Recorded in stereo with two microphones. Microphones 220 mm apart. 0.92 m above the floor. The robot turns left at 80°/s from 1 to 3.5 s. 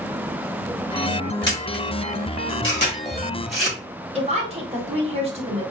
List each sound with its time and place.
1.5 s a camera shutter: 15° left (ahead or behind), 1.9 m; by 3.8 s centre (ahead or behind), 1.9 m
4.2 s a woman speaking: 30° right (ahead or behind), 1.4 m